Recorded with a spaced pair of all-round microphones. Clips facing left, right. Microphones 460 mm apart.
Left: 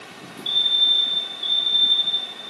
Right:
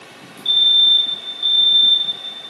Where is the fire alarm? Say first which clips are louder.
Right 1 dB; 65° right (ahead or behind), 4 m.